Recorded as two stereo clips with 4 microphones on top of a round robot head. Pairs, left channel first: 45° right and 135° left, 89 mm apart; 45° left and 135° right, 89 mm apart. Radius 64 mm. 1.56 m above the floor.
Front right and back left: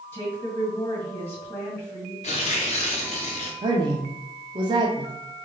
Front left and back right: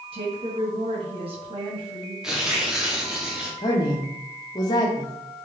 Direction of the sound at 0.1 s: 115° right.